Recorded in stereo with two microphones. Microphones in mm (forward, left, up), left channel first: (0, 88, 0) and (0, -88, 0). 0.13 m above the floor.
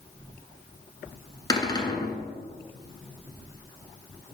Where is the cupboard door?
25° left (ahead or behind), 1.1 m.